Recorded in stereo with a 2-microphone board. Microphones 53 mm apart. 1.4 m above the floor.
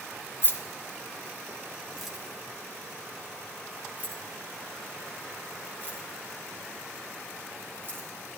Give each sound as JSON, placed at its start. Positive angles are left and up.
{"t": 0.4, "sound": "keys jangling", "side_deg": 45, "distance_m": 1.3}